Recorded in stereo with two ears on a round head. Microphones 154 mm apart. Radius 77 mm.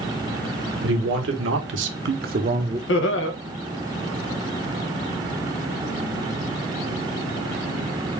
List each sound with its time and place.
0.8 s a man speaking: 80° right, 1.5 m; by 2.8 s 20° right (ahead or behind), 0.6 m
2.9 s laughter: 80° left, 0.9 m